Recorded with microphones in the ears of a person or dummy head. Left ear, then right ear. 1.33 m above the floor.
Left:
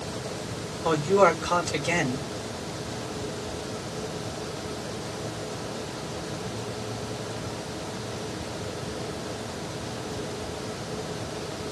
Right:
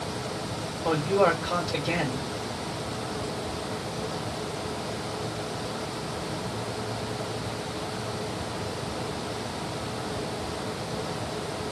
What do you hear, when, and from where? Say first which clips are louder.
0.8 s a man speaking: left 3 dB; 75° left (ahead or behind), 1.0 m